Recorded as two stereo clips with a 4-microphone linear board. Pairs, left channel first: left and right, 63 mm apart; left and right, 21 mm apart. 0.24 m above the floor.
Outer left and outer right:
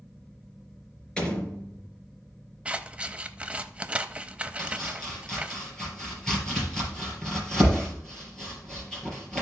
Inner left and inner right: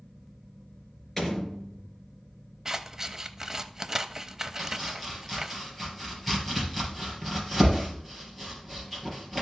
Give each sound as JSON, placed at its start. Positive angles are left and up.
{"t": 1.2, "sound": "a door slam", "side_deg": 15, "distance_m": 3.0}
{"t": 2.6, "sound": "scissors", "side_deg": -20, "distance_m": 0.6}
{"t": 4.6, "sound": "chopping", "side_deg": 10, "distance_m": 4.0}